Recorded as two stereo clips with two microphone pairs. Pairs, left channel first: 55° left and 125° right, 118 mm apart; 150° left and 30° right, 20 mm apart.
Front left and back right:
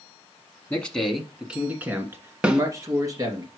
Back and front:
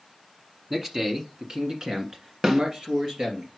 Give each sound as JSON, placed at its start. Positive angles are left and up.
{"t": 0.7, "sound": "a man speaking", "azimuth_deg": -5, "distance_m": 1.2}
{"t": 2.4, "sound": "a snare drum", "azimuth_deg": -50, "distance_m": 0.9}